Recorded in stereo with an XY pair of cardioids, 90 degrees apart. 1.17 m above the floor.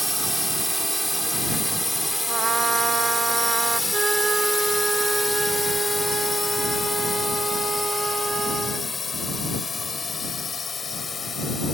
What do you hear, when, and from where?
0.0 s a drone: 5° right; by 11.8 s 45° left
2.3 s a trumpet: 55° right
3.9 s a flute: 35° right